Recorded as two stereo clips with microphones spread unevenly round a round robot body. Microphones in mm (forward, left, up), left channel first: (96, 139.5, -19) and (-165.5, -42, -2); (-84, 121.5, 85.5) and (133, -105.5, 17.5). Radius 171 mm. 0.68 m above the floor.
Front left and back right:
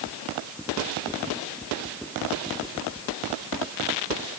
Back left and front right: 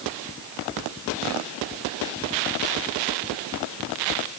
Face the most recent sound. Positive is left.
No sound to turn to.